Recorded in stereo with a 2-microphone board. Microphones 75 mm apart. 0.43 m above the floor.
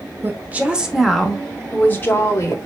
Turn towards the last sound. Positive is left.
turn(degrees=40)  # may be behind; listen again after turning